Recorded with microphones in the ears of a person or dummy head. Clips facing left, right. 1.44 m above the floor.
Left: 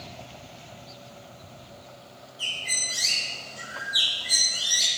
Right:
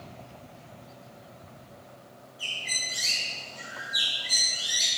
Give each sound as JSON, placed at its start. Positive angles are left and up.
{"t": 2.4, "sound": "a bird", "side_deg": 10, "distance_m": 2.0}